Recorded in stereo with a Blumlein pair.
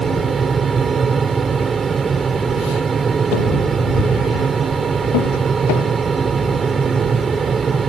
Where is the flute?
No flute in this recording.